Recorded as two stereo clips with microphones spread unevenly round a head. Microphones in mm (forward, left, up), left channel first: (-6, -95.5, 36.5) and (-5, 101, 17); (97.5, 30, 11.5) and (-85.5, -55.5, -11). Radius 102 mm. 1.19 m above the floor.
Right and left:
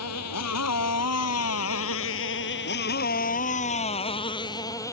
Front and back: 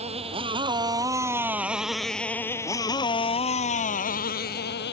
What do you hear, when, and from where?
0.0 s a motorcycle: 95° right; by 4.9 s 15° right